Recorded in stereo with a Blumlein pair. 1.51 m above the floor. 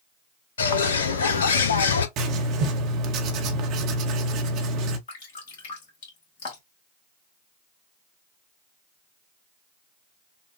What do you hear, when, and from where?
0.6 s a bird: 65° left, 0.6 m
2.2 s writing: 40° right, 1.0 m
5.1 s dripping: 50° left, 2.0 m